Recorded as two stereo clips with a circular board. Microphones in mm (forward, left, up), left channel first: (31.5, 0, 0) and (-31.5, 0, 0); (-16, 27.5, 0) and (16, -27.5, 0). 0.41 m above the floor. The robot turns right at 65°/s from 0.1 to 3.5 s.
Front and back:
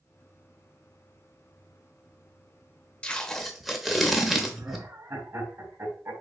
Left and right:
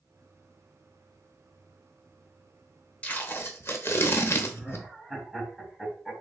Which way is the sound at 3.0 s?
60° left.